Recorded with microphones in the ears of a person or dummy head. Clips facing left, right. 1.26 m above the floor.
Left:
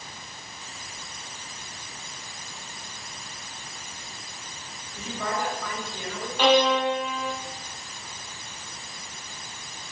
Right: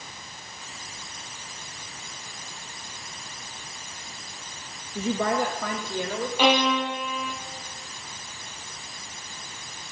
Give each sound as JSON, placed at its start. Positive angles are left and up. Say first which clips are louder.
{"t": 5.0, "sound": "a woman speaking", "louder": "right 6 dB", "side_deg": -50, "distance_m": 2.0}
{"t": 6.4, "sound": "a violin", "louder": "left 3 dB", "side_deg": -5, "distance_m": 3.5}